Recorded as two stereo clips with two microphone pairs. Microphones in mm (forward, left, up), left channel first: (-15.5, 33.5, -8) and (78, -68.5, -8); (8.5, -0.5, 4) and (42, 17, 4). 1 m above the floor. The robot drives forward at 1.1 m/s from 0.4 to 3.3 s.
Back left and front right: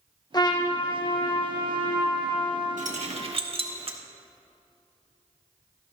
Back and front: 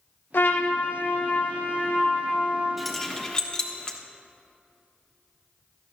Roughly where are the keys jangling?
Ahead right.